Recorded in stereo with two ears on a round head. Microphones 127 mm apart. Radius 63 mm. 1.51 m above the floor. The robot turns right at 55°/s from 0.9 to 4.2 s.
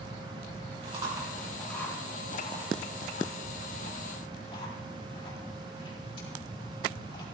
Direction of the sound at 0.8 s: 40° right (ahead or behind).